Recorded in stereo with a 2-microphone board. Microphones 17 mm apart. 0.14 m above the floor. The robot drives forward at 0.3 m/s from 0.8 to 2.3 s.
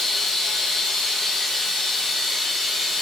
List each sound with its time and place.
0.0 s running water: 50° left (ahead or behind), 1.2 m; by 3.0 s 35° left (ahead or behind), 1.6 m